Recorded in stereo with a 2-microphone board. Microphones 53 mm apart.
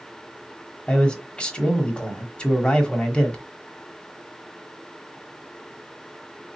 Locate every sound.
0.9 s a man speaking: 20° left (ahead or behind), 0.9 m